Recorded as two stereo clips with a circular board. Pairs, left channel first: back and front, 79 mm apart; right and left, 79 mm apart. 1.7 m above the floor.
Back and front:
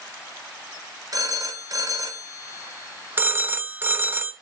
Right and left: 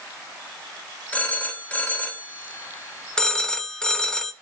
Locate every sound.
1.1 s a phone ringing: 20° right, 1.7 m
3.2 s a phone ringing: 20° right, 0.7 m